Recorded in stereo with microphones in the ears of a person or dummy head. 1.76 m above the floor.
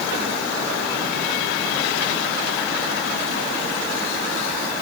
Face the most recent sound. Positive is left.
No sound to turn to.